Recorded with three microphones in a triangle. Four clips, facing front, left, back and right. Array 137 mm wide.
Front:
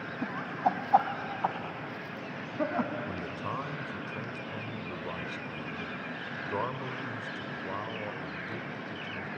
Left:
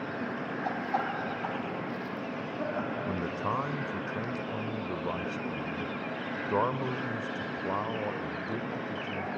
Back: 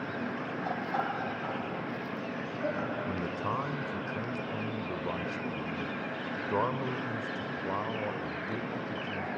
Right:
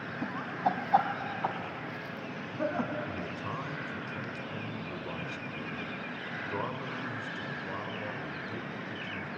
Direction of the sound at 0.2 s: 30° right.